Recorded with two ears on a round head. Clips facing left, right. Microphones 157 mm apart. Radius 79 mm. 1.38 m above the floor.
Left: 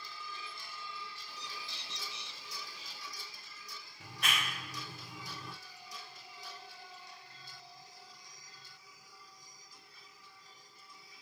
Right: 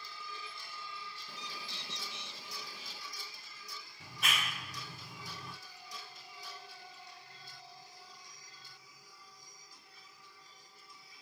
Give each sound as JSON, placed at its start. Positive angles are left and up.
{"t": 1.3, "sound": "a bird", "side_deg": -45, "distance_m": 1.8}
{"t": 4.0, "sound": "a clap", "side_deg": 0, "distance_m": 2.5}